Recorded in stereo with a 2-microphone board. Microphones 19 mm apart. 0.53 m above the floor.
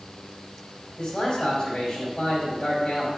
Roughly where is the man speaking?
Left.